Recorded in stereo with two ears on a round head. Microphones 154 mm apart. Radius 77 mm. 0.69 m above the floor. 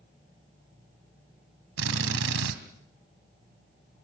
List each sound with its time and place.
1.8 s a drill: 85° right, 3 m